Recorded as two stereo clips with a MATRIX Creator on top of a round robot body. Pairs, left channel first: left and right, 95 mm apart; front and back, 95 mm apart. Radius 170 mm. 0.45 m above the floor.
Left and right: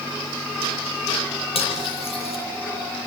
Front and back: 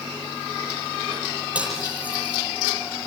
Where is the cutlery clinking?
105° left, 9 m.